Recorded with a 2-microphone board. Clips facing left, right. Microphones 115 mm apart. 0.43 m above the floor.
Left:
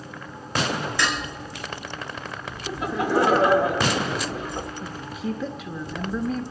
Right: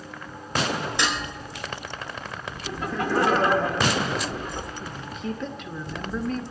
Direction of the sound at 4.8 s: 5° left (ahead or behind).